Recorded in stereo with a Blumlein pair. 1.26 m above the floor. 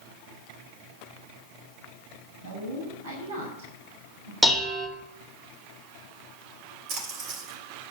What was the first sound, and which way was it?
A woman speaking, 60° right.